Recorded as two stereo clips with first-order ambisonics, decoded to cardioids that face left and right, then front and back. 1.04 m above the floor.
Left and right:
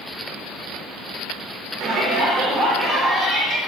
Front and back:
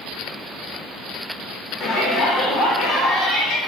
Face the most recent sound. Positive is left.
turn(degrees=-5)